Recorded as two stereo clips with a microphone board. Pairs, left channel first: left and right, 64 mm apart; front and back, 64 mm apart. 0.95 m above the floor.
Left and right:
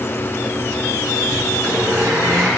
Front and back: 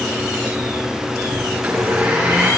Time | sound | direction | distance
1.5 | a blender | 100° right | 8.5 m